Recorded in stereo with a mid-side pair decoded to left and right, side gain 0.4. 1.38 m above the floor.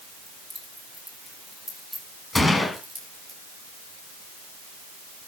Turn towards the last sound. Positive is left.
turn(degrees=25)